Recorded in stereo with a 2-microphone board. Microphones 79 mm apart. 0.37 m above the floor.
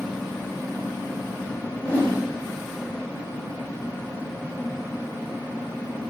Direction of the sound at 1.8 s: 15° left (ahead or behind).